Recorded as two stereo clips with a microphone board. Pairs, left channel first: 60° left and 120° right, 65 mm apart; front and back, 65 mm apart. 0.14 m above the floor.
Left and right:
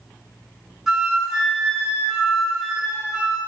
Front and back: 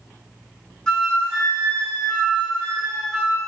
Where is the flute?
55° right, 0.9 m.